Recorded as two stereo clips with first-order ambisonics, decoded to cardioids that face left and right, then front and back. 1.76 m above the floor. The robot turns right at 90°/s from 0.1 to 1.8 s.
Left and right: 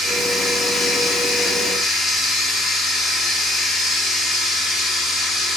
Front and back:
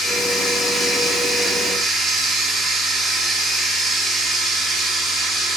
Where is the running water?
10° right, 1.5 m; by 5.6 s 145° left, 1.5 m.